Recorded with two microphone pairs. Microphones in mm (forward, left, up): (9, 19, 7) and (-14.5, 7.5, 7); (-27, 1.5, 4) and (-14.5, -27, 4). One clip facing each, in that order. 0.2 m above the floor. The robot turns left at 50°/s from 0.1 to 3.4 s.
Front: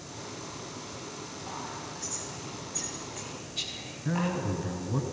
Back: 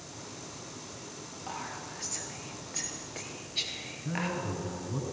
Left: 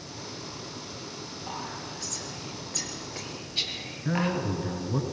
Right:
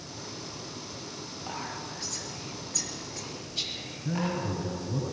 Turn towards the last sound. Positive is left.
turn(degrees=80)